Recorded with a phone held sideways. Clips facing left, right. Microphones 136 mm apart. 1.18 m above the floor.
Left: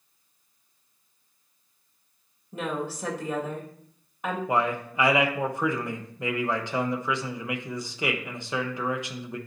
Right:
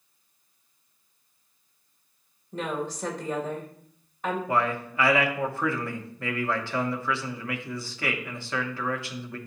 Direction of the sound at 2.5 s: 5° left (ahead or behind).